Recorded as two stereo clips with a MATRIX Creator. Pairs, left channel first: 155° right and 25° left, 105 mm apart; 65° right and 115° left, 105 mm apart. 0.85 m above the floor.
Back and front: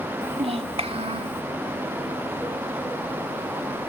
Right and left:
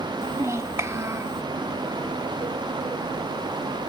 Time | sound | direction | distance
0.2 | a child speaking | 50° left | 1.5 m